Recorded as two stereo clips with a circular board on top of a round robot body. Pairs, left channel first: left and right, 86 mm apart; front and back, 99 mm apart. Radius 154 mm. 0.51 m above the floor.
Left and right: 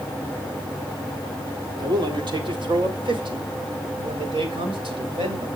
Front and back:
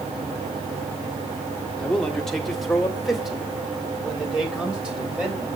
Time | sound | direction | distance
1.8 | a man speaking | 80° right | 1.9 m